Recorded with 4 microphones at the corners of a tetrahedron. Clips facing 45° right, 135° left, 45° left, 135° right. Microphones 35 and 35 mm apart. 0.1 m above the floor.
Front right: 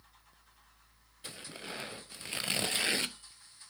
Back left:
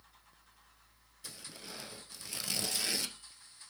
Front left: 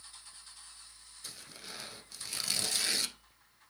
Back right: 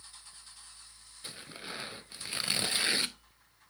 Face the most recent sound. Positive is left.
turn(degrees=-80)